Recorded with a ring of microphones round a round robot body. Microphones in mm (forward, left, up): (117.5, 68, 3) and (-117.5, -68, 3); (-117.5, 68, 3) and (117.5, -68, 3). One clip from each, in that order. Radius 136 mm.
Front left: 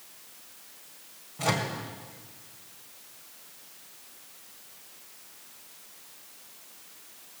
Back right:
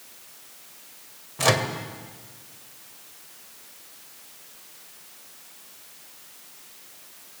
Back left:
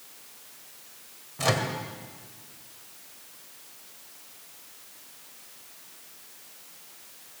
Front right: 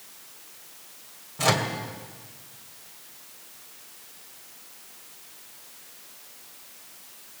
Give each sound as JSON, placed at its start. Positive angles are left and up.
{"t": 1.4, "sound": "a microwave", "azimuth_deg": -115, "distance_m": 2.0}